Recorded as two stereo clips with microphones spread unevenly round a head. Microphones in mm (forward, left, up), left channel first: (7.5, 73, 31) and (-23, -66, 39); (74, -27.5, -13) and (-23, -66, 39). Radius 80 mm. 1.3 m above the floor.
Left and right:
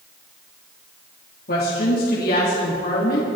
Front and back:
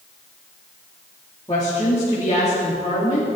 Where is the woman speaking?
80° left, 3 m.